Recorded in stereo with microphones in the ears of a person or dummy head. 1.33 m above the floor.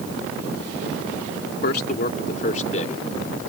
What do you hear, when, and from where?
1.6 s a man speaking: 55° left (ahead or behind); by 3.5 s 40° left (ahead or behind)